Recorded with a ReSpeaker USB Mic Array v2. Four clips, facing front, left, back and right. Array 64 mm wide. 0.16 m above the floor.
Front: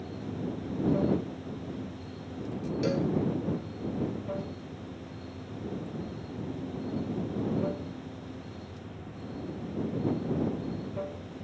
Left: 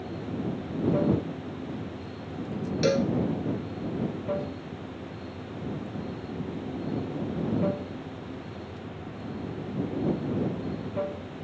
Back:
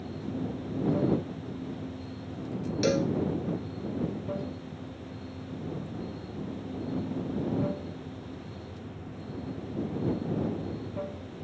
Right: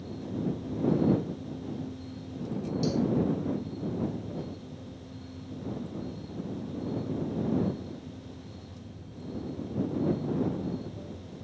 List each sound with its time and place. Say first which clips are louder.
0.0 s running water: left 1 dB, back 1 dB; 90° left
2.8 s a cowbell: left 5 dB, back 3 dB; 115° left